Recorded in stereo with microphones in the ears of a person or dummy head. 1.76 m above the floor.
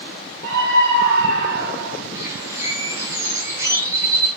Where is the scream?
75° right (ahead or behind), 5 m; by 2.0 s 55° right (ahead or behind), 3.5 m.